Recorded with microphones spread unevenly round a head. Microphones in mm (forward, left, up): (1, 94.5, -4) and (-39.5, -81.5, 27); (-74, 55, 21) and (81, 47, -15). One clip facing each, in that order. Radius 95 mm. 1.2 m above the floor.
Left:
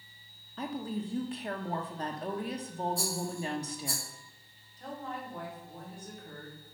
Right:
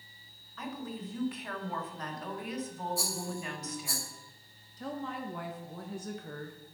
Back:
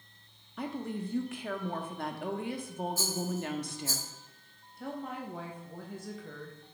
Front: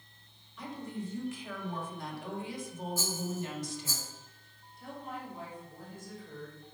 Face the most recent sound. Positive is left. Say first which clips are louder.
# right 3 dB, back 4 dB
turn(degrees=-135)